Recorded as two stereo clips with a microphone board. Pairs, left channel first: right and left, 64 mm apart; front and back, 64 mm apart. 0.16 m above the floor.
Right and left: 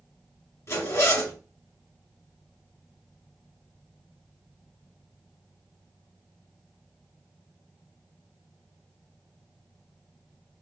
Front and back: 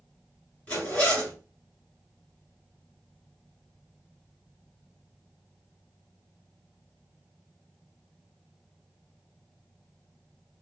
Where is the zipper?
65° right, 2 m.